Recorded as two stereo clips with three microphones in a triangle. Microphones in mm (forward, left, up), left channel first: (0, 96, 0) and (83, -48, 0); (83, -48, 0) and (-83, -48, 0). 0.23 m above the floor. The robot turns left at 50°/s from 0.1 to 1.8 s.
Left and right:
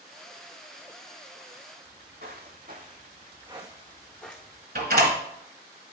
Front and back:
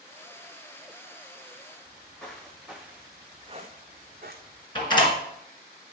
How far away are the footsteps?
About 2 m.